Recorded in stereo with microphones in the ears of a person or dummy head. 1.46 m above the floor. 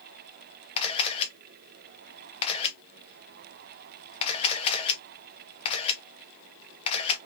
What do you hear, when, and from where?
0.8 s a camera shutter: 35° left (ahead or behind), 1.2 m